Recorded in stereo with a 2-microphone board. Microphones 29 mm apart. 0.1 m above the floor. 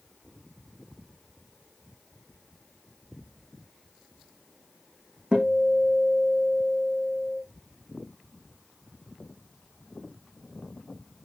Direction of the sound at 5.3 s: 40° right (ahead or behind).